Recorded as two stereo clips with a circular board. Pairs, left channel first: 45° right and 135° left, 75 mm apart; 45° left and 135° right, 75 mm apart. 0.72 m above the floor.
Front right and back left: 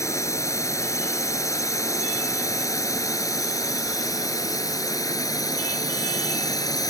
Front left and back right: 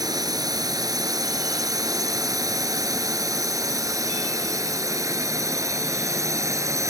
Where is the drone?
95° right; by 6.9 s 85° right.